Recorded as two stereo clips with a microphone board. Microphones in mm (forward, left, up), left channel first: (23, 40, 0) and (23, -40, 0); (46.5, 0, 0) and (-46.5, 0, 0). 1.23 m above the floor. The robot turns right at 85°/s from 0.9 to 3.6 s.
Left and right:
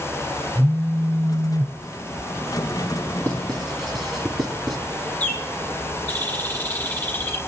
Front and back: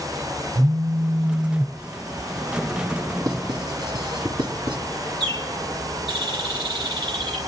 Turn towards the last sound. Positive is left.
turn(degrees=160)